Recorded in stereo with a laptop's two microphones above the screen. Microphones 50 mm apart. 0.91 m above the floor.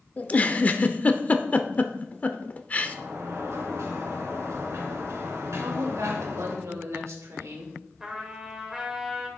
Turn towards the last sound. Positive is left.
turn(degrees=-15)  # may be behind; listen again after turning